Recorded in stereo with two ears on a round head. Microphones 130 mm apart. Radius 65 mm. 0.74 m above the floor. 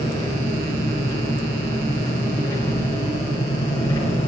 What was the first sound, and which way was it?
An engine running, 25° left (ahead or behind).